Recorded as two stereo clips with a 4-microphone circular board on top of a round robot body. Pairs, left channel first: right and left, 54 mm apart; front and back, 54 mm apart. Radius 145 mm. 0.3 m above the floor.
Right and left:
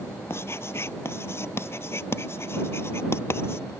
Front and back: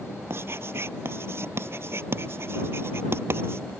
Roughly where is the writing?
Behind right.